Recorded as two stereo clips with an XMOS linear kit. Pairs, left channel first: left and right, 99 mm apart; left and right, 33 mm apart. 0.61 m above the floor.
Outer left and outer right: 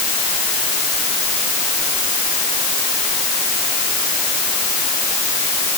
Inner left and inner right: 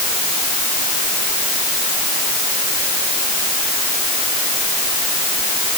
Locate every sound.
Only background noise.